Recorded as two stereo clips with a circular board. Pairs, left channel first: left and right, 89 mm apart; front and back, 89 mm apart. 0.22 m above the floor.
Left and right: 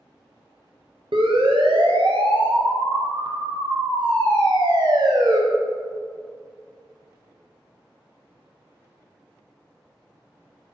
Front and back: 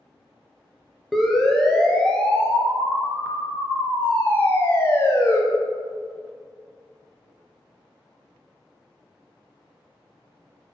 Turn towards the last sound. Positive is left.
turn(degrees=-55)